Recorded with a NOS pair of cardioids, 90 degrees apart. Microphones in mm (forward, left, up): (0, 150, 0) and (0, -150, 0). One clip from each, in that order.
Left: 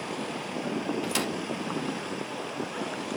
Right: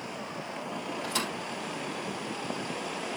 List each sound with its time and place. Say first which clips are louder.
1.0 s a thud: right 1 dB; 65° left, 4 m